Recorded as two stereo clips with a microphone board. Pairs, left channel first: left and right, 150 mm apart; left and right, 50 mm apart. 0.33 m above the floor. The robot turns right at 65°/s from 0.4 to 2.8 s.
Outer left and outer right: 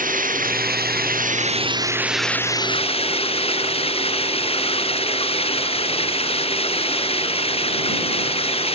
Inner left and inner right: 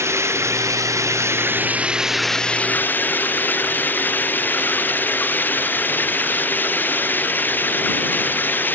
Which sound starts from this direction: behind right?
Running water, at 0.0 s.